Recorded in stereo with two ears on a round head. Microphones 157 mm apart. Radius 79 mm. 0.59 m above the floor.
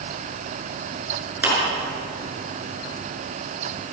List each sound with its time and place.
1.4 s a clap: 10° right (ahead or behind), 8 m